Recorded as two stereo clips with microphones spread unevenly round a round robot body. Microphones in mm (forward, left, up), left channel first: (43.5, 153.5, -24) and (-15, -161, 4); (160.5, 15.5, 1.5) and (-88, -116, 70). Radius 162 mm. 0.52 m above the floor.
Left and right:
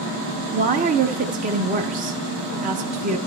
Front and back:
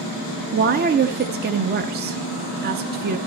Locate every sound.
0.5 s a woman speaking: 125° right, 0.7 m